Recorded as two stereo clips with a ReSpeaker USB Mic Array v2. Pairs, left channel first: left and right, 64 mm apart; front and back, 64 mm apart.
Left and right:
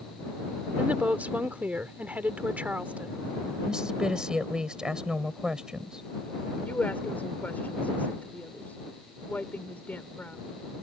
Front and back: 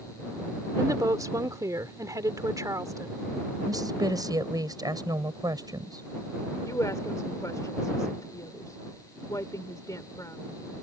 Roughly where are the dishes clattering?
I don't hear dishes clattering.